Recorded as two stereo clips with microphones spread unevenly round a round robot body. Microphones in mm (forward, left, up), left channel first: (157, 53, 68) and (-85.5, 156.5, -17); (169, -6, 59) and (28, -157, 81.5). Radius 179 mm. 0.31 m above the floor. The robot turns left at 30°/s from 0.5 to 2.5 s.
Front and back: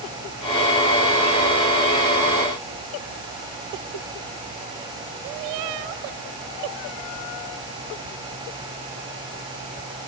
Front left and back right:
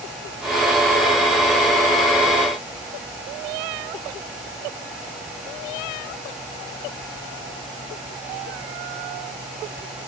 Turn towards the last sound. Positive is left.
No sound to turn to.